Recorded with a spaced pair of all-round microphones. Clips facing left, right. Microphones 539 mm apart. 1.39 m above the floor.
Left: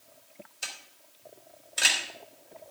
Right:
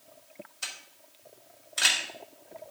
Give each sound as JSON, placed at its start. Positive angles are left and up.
{"t": 0.6, "sound": "a camera shutter", "side_deg": -25, "distance_m": 3.0}